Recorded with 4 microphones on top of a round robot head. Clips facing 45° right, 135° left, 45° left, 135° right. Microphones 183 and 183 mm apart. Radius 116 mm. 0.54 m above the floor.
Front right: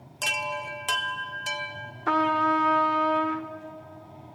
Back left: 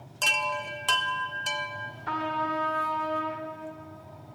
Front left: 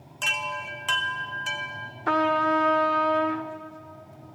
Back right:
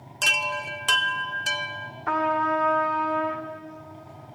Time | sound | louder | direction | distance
0.2 | a chime | back left 1 dB, back right 3 dB | 125° right | 0.7 m
2.1 | a trumpet | front right 7 dB, front left 2 dB | 10° right | 0.7 m